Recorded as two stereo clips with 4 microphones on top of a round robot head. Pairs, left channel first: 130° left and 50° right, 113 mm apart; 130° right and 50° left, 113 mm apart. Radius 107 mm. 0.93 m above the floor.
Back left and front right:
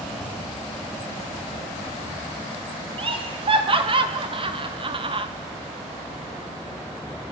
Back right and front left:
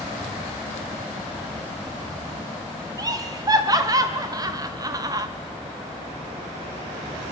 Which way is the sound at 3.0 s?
10° right.